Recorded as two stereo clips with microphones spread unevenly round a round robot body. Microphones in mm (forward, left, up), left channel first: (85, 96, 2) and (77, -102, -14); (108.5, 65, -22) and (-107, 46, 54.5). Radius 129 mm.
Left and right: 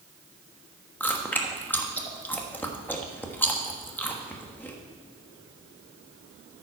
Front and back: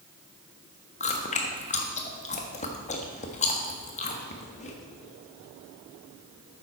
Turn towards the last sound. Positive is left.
turn(degrees=5)